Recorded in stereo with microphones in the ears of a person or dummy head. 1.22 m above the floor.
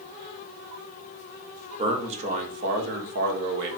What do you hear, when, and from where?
1.8 s a man speaking: 30° right (ahead or behind), 1.7 m; by 3.8 s 70° right (ahead or behind), 1.5 m